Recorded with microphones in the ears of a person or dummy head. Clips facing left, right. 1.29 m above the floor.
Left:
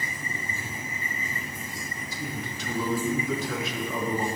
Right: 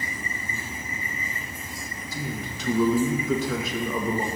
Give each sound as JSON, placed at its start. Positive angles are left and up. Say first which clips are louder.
{"t": 2.1, "sound": "a man speaking", "louder": "right 3 dB", "side_deg": -65, "distance_m": 1.8}